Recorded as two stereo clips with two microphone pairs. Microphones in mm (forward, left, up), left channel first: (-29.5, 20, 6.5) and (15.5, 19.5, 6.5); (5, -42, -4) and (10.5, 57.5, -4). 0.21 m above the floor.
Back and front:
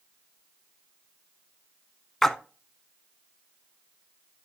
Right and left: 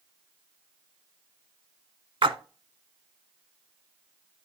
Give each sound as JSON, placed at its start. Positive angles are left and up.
{"t": 2.2, "sound": "a splash", "azimuth_deg": 100, "distance_m": 0.6}